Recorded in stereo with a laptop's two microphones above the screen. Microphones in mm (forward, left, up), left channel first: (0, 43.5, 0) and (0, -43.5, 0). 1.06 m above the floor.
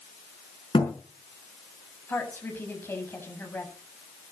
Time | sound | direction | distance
0.7 | a thud | 85° left | 5 m
2.1 | a woman speaking | 25° left (ahead or behind) | 7.5 m